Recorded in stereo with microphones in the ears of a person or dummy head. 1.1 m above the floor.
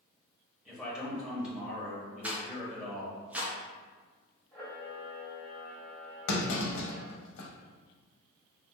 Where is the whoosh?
I don't hear a whoosh.